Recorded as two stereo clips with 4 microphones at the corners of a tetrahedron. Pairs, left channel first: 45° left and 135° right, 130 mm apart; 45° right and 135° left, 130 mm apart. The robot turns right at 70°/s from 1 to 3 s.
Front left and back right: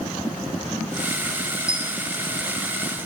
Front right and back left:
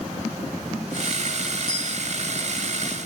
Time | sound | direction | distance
1.7 | a dropped coin | 55° right | 3.5 m